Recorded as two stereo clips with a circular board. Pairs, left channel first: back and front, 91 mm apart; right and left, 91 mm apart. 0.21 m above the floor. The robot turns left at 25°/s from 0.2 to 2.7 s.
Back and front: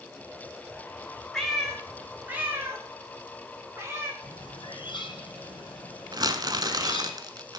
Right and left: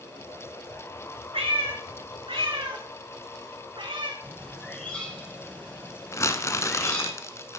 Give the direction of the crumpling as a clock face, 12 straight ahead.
1 o'clock.